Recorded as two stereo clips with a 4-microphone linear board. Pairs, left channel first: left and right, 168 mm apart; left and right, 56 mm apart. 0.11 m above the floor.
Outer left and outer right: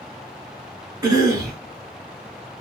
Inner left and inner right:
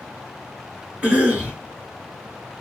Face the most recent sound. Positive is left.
turn(degrees=-20)  # may be behind; listen again after turning